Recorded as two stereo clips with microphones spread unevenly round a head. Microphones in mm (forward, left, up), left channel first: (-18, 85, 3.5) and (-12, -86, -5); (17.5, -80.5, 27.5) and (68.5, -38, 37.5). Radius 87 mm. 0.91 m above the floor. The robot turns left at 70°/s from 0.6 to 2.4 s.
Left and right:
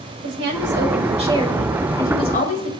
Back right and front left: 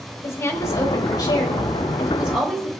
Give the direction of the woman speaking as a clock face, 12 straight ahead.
3 o'clock.